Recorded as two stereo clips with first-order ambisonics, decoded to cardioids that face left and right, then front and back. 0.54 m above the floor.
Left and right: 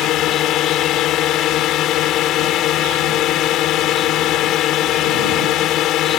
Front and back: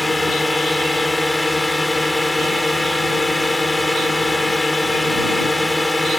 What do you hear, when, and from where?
0.0 s a drone: 80° left